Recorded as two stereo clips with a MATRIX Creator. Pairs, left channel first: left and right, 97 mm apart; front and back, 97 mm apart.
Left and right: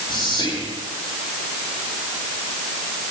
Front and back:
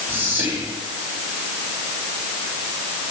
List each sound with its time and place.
0.1 s whispering: 115° left, 3 m